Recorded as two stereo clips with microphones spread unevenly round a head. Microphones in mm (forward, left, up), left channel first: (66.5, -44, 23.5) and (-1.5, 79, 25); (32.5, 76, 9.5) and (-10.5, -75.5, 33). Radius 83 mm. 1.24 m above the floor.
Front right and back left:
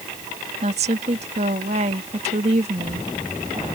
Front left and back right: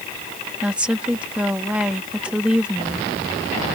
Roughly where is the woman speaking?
Behind.